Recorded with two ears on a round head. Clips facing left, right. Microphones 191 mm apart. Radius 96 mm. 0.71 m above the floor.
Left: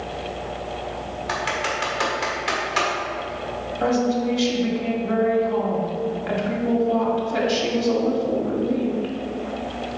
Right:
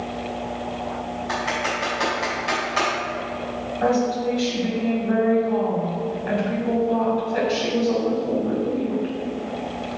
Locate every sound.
1.3 s typing on a keyboard: 75° left (ahead or behind), 1.8 m
3.8 s a woman speaking: 60° left (ahead or behind), 1.6 m